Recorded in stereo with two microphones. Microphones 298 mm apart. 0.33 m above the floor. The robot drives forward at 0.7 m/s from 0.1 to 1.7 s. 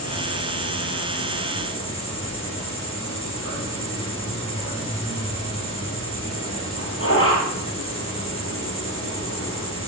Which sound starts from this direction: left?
An insect, at 0.0 s.